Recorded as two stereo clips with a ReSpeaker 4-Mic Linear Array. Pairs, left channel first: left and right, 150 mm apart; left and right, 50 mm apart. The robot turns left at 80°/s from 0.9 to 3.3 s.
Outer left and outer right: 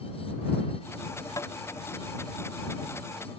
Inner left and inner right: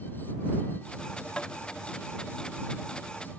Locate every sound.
1.4 s tapping: 20° left (ahead or behind); by 1.5 s 35° left (ahead or behind)